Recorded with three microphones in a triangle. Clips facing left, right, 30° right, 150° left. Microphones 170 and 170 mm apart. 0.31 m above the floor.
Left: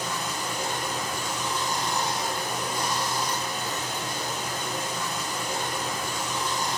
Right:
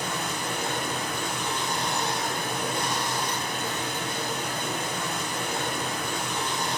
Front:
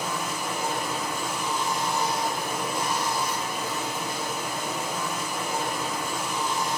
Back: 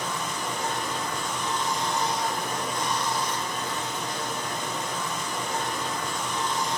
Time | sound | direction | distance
0.0 | running water | 110° right | 1.6 m